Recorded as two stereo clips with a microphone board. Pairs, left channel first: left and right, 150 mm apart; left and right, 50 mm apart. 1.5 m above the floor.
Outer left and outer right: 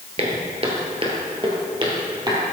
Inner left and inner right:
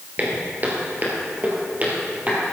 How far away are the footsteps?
About 1.9 m.